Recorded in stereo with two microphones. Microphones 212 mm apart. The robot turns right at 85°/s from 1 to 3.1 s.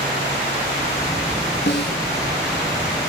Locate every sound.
1.7 s a snare drum: 60° left (ahead or behind), 1.6 m; by 2.0 s 45° left (ahead or behind), 1.6 m